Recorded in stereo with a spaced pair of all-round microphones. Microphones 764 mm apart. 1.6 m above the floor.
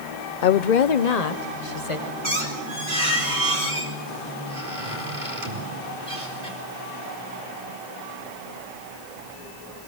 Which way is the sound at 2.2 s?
80° right.